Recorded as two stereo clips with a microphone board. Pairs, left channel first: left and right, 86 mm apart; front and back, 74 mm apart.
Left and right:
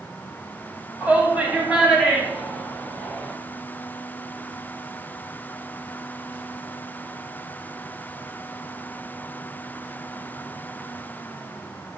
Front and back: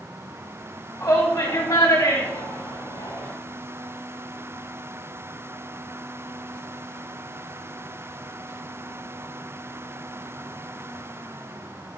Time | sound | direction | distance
1.0 | a shout | 25° right | 2.5 m